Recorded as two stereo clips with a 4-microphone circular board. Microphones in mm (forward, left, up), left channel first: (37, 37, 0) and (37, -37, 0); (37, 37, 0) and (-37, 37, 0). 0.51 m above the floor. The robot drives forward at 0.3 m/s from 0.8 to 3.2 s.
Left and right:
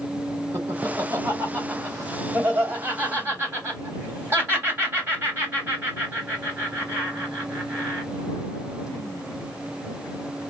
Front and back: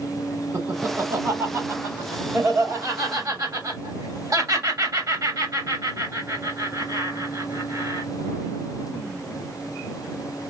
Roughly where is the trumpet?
I don't hear a trumpet.